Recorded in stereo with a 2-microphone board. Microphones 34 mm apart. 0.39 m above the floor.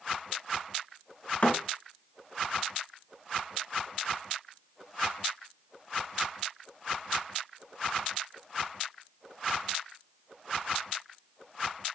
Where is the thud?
45° left (ahead or behind), 1.6 m.